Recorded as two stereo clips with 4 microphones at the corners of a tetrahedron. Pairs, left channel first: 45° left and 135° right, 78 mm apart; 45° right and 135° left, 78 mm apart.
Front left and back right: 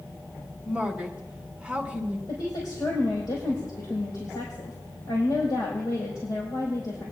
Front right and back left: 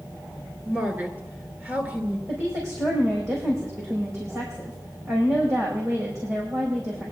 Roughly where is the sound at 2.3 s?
Left.